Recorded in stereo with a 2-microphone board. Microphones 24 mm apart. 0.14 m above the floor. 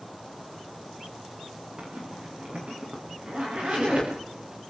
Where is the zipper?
45° right (ahead or behind), 8.5 m.